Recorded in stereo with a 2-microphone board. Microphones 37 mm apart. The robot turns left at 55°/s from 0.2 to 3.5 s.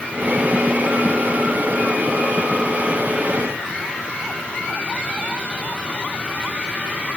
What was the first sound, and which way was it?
Only background noise.